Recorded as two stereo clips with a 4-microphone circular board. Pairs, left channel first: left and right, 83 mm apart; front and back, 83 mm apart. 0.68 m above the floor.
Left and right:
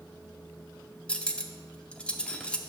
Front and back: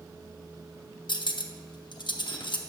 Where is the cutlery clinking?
15° left, 0.6 m.